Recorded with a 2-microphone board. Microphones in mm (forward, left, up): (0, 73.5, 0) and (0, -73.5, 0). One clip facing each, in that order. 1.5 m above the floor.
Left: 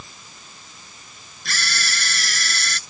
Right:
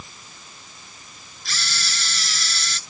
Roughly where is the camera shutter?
Left.